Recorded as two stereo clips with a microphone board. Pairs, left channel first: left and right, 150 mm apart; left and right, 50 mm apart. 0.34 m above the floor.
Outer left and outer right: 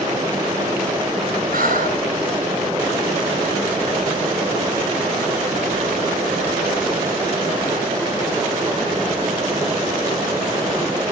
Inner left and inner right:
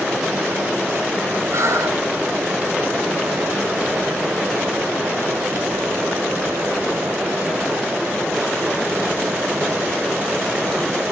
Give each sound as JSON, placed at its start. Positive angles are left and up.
{"t": 1.5, "sound": "breathing", "side_deg": -70, "distance_m": 4.5}